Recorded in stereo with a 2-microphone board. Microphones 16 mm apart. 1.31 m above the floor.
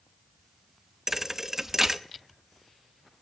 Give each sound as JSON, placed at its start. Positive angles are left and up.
{"t": 1.1, "sound": "a thud", "side_deg": -25, "distance_m": 0.8}